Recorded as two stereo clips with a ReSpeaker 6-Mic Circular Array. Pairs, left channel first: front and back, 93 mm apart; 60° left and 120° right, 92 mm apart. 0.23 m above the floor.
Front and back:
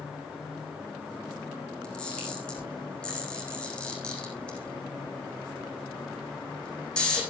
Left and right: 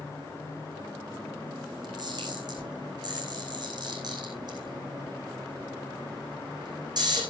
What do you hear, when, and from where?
1.8 s a camera shutter: 80° right, 7.5 m